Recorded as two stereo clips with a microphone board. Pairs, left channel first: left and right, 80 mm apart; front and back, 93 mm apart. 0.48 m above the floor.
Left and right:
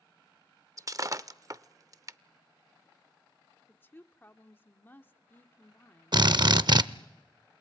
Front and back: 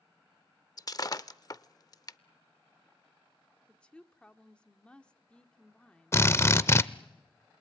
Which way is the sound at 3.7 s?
65° left.